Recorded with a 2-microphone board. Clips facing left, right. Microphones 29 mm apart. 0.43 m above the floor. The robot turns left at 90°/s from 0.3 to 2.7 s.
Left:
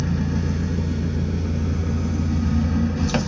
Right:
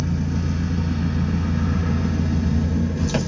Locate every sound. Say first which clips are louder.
0.0 s an engine running: left 1 dB; 20° left, 1.3 m; by 3.3 s 160° left, 1.3 m